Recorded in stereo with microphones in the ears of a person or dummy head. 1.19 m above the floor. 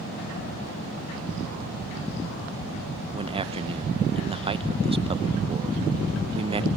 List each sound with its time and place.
3.1 s a man speaking: 25° right (ahead or behind), 0.9 m